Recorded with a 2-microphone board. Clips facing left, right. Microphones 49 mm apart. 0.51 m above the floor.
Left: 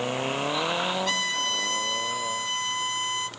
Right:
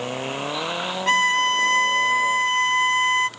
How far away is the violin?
About 0.6 m.